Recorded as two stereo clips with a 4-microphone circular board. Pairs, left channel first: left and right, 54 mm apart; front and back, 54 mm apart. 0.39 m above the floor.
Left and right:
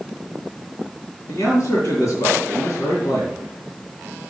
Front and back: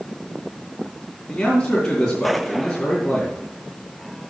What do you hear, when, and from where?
1.3 s a man speaking: 70° left, 3 m